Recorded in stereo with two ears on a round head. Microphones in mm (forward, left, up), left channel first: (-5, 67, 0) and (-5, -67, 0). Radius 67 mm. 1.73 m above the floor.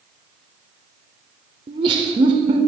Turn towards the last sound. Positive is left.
turn(degrees=-35)  # may be behind; listen again after turning